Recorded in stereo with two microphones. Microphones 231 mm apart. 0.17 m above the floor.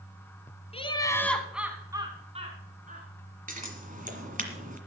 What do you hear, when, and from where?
0.7 s laughter: 25° left (ahead or behind), 1.1 m; by 3.1 s 35° right (ahead or behind), 1.8 m
3.5 s scissors: 35° right (ahead or behind), 1.7 m